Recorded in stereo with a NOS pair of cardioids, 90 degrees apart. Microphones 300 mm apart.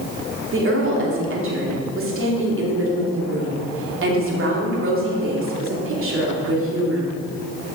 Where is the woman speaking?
45° right, 3 m.